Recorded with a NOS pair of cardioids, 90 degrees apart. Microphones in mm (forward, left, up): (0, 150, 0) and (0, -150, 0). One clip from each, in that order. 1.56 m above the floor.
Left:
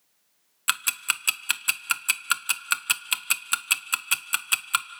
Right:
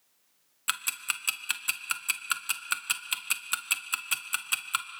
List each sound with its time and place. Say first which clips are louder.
0.7 s ticking: left 5 dB; 25° left, 0.8 m